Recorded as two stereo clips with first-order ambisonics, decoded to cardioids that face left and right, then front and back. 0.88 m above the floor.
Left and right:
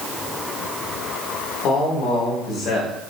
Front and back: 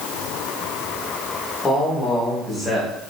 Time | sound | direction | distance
1.6 | a man speaking | 70° left | 1.2 m